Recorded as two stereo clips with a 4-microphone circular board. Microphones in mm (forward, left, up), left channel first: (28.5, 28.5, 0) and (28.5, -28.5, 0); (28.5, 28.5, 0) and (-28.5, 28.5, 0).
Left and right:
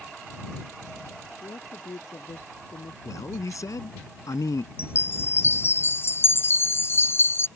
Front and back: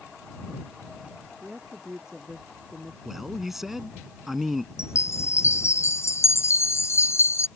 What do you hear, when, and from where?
1.4 s a woman speaking: 100° left
3.0 s a man speaking: 95° left
4.8 s a chime: 40° left